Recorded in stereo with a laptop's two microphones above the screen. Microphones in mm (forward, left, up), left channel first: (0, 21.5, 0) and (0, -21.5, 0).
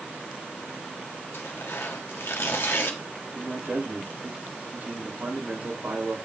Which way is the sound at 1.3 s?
70° left (ahead or behind).